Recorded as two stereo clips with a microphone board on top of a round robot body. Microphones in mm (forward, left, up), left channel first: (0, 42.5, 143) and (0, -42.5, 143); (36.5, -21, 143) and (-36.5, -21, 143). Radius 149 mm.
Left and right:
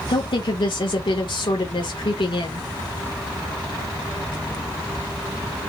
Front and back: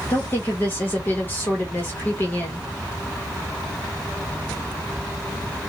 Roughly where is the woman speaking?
Ahead left.